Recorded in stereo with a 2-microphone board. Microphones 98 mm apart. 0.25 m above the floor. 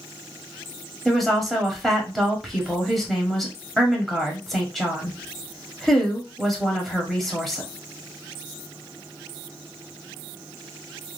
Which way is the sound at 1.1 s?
5° left (ahead or behind).